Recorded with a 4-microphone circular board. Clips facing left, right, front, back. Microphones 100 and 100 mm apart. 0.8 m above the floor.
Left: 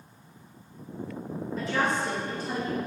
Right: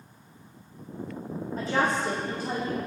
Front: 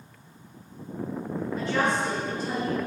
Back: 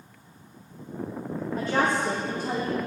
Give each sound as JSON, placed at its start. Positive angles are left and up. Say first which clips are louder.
{"t": 1.6, "sound": "a woman speaking", "louder": "right 2 dB, back 1 dB", "azimuth_deg": -140, "distance_m": 1.3}